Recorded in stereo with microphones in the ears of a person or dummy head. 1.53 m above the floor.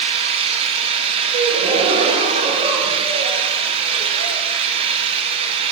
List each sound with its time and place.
0.0 s an engine running: 35° right (ahead or behind), 1.9 m
1.3 s a gasp: 35° right (ahead or behind), 2.5 m